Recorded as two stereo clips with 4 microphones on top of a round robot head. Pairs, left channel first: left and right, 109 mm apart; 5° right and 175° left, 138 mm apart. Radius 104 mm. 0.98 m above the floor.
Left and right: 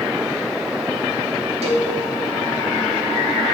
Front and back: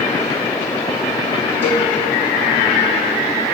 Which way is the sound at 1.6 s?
110° right.